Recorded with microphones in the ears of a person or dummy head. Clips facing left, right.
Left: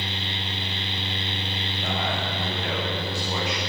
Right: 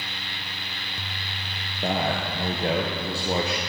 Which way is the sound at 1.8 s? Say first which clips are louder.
Right 4 dB; 25° right (ahead or behind).